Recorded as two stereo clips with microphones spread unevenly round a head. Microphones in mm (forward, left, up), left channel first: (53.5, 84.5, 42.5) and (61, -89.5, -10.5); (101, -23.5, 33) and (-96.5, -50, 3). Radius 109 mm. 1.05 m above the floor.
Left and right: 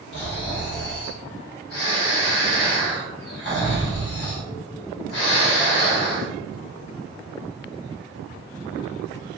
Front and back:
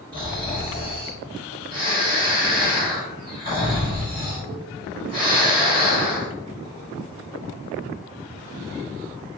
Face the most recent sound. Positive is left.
turn(degrees=120)